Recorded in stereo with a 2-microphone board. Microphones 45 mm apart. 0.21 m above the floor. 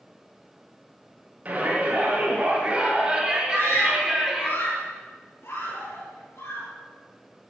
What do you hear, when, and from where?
1.4 s a shout: 35° right (ahead or behind), 5.5 m; by 4.5 s 5° right (ahead or behind), 4 m
3.5 s a scream: 75° left (ahead or behind), 6.5 m